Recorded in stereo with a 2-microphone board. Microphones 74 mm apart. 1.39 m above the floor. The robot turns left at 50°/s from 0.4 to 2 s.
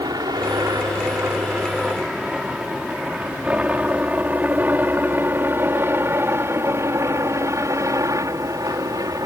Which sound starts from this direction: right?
A helicopter, at 0.0 s.